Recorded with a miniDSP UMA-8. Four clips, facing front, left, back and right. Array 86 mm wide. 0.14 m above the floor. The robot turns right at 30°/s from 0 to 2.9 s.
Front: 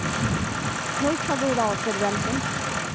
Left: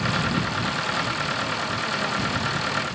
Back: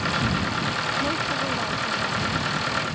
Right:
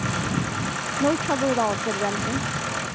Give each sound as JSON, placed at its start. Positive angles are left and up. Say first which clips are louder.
{"t": 1.0, "sound": "a woman speaking", "louder": "right 6 dB, front 3 dB", "azimuth_deg": -70}